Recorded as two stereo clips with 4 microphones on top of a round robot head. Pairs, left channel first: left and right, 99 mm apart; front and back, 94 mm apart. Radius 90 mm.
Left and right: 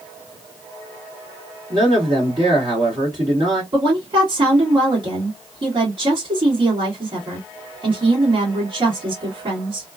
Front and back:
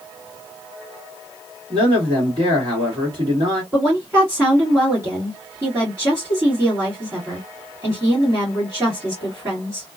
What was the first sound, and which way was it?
A man speaking, 140° right.